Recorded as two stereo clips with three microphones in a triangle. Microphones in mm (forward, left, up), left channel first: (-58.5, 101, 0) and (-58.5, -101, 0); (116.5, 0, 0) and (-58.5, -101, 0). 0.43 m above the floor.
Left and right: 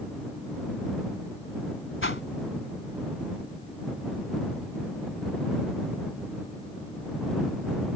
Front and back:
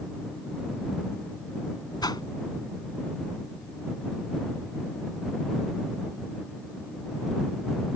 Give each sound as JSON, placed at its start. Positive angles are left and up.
{"t": 2.0, "sound": "a whoosh", "azimuth_deg": 100}